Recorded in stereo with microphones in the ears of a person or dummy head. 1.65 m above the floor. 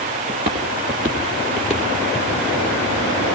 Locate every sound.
0.3 s footsteps: 20° right (ahead or behind), 1.7 m; by 2.4 s centre (ahead or behind), 2.5 m